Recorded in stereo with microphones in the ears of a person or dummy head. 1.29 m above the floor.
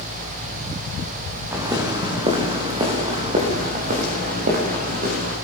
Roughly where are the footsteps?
Centre.